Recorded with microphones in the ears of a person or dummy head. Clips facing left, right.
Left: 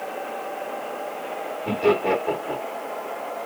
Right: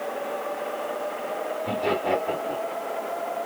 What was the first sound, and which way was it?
Laughter, 75° left (ahead or behind).